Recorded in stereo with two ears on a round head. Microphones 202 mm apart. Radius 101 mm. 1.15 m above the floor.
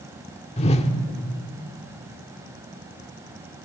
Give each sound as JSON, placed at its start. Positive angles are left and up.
{"t": 0.6, "sound": "a whoosh", "side_deg": 30, "distance_m": 1.5}